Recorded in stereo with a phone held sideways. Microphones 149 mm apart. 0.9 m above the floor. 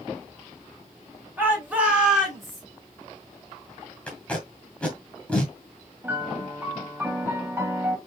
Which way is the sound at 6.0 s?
15° right (ahead or behind).